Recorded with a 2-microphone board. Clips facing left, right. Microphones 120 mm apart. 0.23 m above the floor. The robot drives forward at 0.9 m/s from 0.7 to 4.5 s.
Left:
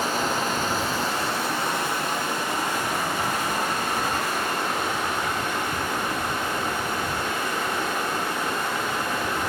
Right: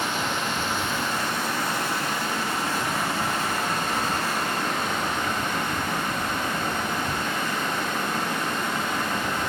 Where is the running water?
40° left (ahead or behind), 1.7 m; by 9.5 s 15° left (ahead or behind), 5 m.